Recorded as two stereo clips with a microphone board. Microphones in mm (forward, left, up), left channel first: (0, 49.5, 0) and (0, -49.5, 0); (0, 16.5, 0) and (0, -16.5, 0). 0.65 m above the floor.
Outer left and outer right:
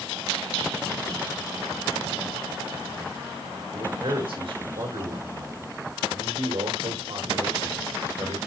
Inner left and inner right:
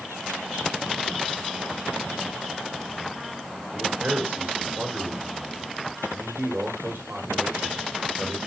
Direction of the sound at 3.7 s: 65° right (ahead or behind).